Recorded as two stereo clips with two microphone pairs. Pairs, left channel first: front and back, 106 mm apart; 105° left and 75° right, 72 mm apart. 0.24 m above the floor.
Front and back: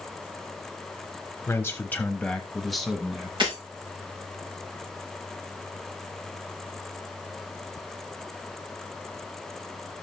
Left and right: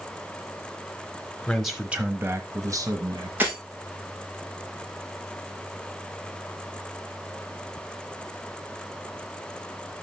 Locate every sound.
1.5 s a man speaking: 35° left, 1.0 m; by 3.3 s 95° right, 1.7 m
3.4 s breaking glass: 140° right, 4.5 m